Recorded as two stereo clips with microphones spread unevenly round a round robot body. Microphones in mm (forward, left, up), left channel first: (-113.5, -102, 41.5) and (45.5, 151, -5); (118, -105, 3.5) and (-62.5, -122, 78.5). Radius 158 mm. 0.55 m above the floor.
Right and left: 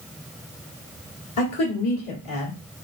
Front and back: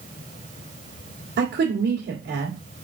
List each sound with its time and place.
1.4 s a woman speaking: 140° right, 1.8 m